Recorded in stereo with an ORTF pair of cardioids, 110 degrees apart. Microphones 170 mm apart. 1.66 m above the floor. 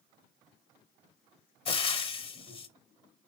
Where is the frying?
35° left, 0.7 m.